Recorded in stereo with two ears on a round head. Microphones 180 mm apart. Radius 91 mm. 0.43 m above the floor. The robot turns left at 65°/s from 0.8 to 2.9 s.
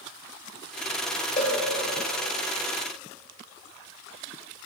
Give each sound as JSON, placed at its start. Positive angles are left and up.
{"t": 1.4, "sound": "a cowbell", "side_deg": 35, "distance_m": 1.6}